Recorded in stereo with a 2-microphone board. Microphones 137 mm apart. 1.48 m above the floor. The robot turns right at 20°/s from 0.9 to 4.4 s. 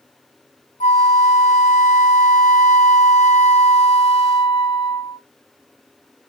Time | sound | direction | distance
0.8 | a flute | 70° left | 0.8 m